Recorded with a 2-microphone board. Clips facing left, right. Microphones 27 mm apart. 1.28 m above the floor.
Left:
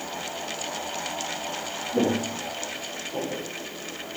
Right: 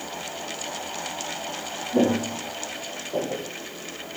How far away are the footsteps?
About 4 m.